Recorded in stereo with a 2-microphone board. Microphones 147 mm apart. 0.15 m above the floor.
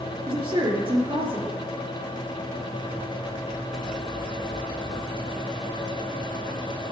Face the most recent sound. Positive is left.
turn(degrees=-35)  # may be behind; listen again after turning